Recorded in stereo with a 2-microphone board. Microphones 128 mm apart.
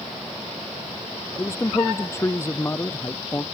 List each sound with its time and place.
1.4 s a man speaking: 20° left (ahead or behind)